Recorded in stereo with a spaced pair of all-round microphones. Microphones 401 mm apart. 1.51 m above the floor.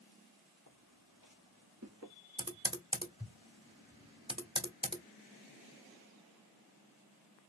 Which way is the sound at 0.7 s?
55° right (ahead or behind).